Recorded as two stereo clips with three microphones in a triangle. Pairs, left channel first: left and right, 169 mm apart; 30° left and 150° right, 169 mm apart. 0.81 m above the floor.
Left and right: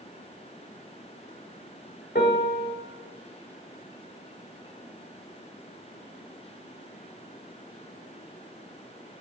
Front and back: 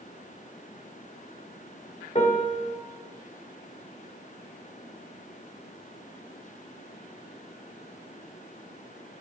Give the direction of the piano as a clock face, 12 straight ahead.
10 o'clock.